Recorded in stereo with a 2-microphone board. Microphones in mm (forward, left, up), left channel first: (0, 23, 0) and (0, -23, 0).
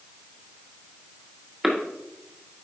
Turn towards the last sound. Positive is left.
turn(degrees=-5)  # may be behind; listen again after turning